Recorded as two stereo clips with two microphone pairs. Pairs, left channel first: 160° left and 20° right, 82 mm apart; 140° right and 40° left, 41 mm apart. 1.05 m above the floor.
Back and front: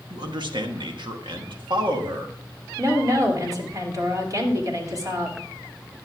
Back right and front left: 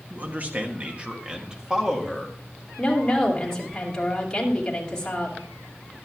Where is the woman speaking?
65° right, 2.5 m.